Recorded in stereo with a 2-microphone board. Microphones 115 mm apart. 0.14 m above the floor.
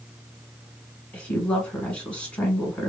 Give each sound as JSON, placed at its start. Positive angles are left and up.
{"t": 1.1, "sound": "a woman speaking", "side_deg": 10, "distance_m": 1.2}